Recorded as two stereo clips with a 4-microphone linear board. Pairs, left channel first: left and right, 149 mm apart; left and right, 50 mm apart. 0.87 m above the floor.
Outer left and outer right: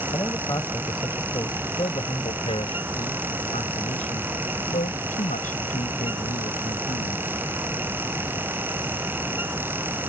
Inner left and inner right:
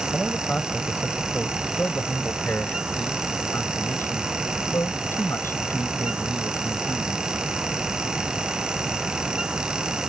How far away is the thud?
No thud in this recording.